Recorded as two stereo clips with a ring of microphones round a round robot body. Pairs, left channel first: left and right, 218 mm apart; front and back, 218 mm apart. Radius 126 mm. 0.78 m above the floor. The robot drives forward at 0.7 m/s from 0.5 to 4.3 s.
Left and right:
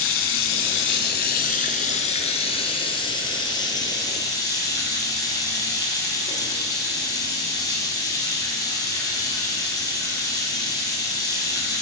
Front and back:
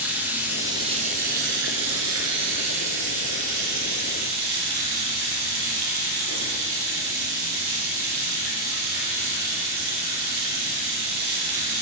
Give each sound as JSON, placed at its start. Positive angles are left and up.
{"t": 0.0, "sound": "running water", "azimuth_deg": 100, "distance_m": 1.0}